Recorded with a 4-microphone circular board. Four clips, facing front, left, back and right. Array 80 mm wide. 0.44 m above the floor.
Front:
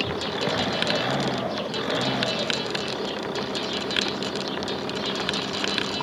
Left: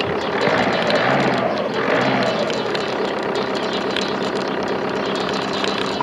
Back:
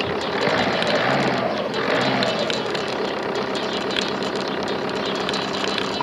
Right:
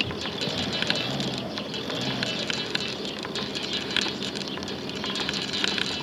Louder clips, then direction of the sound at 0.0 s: Left 13 dB, back 5 dB; 110° left.